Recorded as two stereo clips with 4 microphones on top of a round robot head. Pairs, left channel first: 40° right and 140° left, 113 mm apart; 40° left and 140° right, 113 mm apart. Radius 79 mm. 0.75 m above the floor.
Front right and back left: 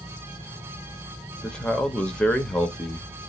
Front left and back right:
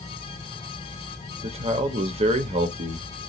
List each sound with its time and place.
1.4 s a man speaking: 125° right, 0.8 m